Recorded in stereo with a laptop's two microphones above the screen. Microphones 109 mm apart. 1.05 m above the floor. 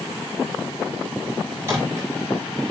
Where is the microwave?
25° right (ahead or behind), 8.5 m.